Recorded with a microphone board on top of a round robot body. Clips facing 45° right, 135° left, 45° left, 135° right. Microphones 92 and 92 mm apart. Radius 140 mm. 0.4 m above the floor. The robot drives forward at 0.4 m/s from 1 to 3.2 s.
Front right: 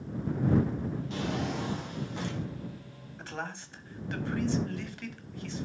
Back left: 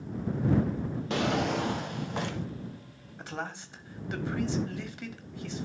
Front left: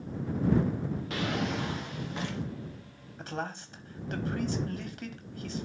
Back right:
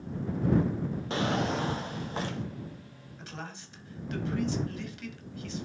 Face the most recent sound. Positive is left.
turn(degrees=65)